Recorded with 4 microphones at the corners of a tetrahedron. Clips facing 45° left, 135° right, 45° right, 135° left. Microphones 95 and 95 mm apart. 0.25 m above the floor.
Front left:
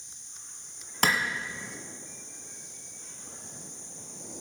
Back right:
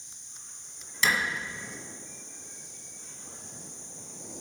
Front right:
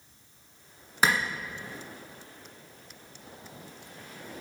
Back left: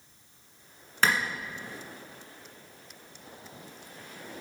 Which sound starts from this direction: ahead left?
A clap, at 1.0 s.